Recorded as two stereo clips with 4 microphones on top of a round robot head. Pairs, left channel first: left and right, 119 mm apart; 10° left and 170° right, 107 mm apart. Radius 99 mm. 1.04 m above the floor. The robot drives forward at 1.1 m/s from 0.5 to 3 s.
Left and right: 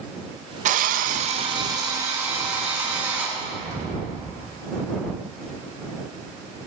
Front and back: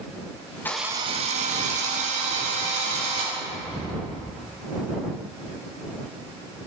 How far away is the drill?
About 0.5 m.